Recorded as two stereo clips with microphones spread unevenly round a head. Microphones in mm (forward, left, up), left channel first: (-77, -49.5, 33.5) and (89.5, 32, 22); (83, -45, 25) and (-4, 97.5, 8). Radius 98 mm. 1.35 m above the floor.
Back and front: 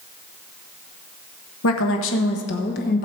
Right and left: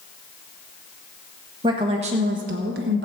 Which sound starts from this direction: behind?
A woman speaking, at 1.6 s.